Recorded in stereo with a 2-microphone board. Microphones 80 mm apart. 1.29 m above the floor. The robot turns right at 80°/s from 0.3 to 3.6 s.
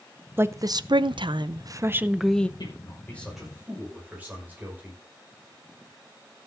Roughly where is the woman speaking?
Behind right.